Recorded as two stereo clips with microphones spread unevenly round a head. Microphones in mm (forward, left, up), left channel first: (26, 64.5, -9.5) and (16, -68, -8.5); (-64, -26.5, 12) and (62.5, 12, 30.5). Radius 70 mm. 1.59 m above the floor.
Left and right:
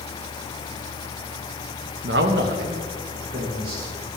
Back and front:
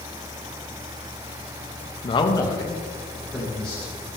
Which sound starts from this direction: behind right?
A man speaking, at 2.0 s.